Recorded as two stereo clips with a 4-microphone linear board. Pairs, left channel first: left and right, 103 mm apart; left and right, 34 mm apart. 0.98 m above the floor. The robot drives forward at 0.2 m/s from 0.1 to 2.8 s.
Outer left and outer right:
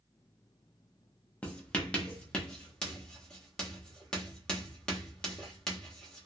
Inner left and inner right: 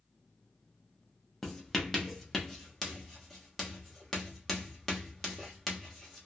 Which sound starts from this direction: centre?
Writing, at 1.4 s.